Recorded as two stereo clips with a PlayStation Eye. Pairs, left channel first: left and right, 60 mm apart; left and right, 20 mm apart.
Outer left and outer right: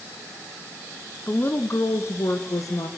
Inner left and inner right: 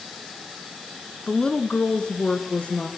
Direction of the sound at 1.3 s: 30° left (ahead or behind).